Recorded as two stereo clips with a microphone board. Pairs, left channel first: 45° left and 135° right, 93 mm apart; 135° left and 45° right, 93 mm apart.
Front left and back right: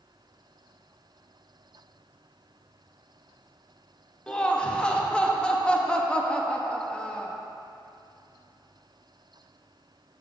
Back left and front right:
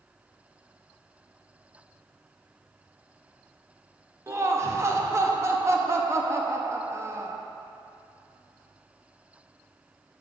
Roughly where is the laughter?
Ahead right.